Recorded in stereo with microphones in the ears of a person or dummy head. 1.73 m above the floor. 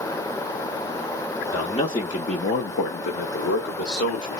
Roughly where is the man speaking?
Centre.